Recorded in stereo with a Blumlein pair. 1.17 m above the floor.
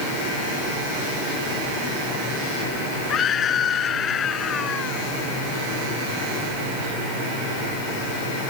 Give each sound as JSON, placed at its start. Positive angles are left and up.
{"t": 3.1, "sound": "a scream", "azimuth_deg": 25}